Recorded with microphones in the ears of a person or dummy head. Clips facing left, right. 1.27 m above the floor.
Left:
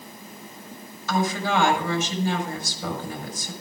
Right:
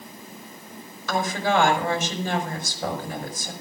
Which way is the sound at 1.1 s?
60° right (ahead or behind).